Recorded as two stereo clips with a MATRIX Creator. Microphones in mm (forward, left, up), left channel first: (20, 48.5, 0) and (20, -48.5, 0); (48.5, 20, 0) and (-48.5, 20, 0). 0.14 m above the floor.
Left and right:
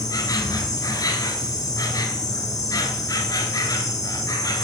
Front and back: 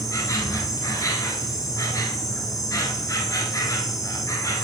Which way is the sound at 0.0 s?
50° left.